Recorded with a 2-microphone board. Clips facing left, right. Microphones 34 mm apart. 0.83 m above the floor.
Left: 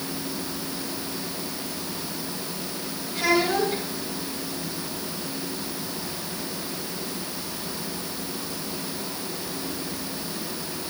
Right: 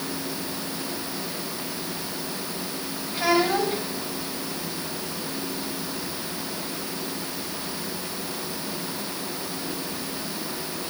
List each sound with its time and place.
3.1 s a child speaking: 35° right (ahead or behind), 3.5 m